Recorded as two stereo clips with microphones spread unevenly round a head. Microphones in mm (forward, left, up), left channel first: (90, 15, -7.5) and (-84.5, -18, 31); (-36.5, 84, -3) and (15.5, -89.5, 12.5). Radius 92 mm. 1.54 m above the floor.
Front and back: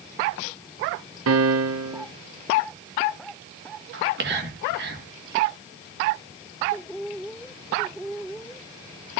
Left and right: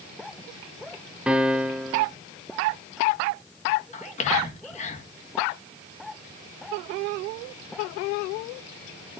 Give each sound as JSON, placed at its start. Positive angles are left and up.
{"t": 1.3, "sound": "a piano", "azimuth_deg": -160, "distance_m": 0.8}
{"t": 3.9, "sound": "whispering", "azimuth_deg": 160, "distance_m": 2.0}